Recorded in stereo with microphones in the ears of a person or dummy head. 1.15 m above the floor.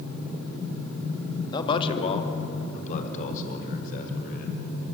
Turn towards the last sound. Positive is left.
turn(degrees=55)  # may be behind; listen again after turning